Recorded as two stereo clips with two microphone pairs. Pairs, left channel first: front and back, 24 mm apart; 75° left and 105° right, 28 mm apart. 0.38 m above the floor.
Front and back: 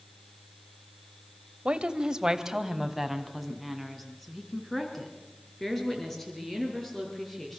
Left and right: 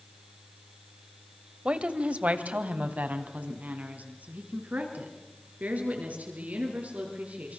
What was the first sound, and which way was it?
A woman speaking, 140° right.